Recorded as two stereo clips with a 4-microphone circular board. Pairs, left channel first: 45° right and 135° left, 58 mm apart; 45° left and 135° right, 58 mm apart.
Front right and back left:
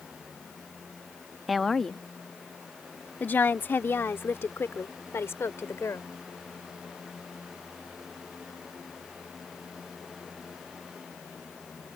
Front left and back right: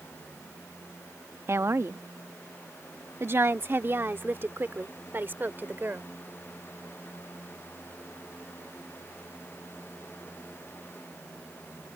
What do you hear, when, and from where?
1.5 s a woman speaking: 135° right; by 6.1 s 80° right